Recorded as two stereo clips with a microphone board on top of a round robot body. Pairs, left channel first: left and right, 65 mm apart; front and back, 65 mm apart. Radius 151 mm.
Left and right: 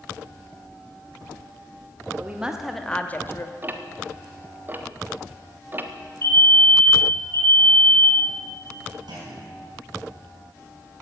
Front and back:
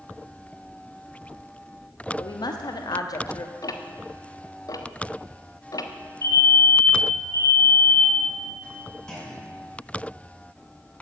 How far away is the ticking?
About 1.3 m.